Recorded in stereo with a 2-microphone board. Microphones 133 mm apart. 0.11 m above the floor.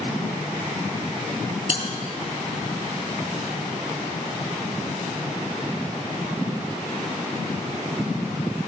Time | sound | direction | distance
1.7 | a bell | 50° left (ahead or behind) | 1.8 m